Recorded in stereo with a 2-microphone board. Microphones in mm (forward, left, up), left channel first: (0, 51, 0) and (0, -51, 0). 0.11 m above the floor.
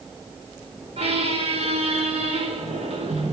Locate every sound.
1.0 s a squeak: 80° right, 1.3 m